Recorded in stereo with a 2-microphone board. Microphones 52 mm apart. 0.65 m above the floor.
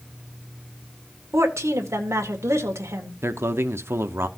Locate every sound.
1.3 s a woman speaking: 65° right (ahead or behind), 1.8 m
3.2 s a man speaking: 55° right (ahead or behind), 0.8 m